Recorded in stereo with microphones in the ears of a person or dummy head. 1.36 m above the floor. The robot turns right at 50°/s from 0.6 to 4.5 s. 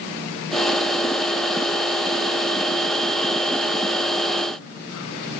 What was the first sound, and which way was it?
Only background noise.